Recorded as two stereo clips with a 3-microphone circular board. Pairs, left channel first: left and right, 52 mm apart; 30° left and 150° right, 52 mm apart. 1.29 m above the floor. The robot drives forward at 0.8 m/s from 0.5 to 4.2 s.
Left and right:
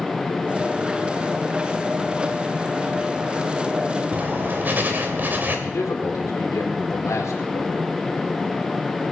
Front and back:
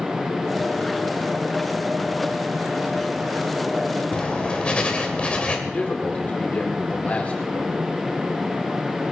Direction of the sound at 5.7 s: 90° left.